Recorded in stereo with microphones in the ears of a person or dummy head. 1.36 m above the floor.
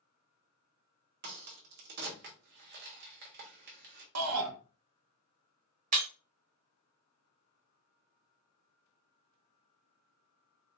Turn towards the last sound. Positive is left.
turn(degrees=-35)  # may be behind; listen again after turning